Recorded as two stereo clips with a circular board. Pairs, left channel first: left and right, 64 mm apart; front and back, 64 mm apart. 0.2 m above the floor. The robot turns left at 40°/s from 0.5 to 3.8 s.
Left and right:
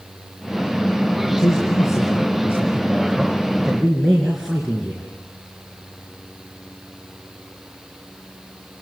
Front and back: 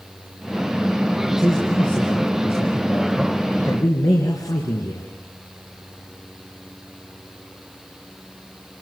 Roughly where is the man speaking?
Left.